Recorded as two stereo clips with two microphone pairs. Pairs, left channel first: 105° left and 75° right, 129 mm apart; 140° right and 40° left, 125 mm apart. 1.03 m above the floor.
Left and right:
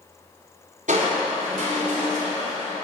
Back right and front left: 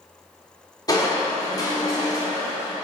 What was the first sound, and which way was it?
Crushing, 85° right.